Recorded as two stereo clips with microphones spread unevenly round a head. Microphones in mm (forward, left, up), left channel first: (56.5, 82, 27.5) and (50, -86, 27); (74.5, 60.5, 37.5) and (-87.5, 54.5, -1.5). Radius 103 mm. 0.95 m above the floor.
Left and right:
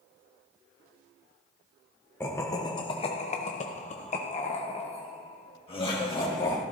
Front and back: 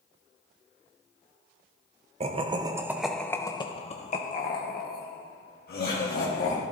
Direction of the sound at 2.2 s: 165° left.